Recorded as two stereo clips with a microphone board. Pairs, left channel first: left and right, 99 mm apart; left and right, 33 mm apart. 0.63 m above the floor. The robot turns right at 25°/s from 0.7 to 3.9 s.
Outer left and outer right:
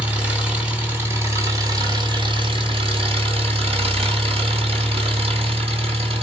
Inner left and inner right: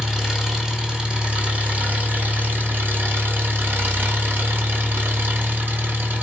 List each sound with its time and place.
0.0 s an engine running: 165° right, 2.5 m; by 6.2 s 85° right, 2.5 m